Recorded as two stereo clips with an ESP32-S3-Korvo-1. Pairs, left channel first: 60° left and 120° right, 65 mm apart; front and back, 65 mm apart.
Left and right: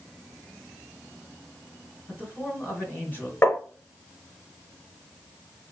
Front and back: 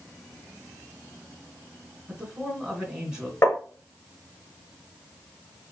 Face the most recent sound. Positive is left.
turn(degrees=30)